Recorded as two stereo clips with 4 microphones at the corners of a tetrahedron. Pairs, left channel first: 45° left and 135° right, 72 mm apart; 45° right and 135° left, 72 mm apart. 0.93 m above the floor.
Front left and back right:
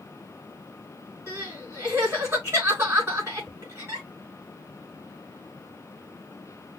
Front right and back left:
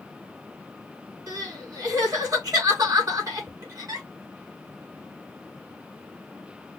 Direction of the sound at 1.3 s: 170° left.